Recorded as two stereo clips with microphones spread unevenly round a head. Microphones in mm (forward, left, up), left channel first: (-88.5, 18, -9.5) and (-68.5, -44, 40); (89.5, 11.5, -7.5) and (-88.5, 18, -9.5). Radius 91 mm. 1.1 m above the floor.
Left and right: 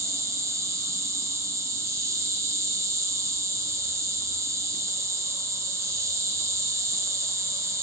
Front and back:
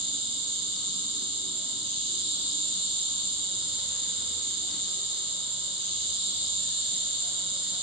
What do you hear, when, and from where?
0.0 s an insect: 115° right, 1.3 m